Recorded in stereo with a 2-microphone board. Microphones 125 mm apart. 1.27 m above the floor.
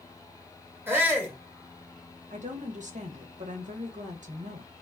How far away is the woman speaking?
About 1.1 m.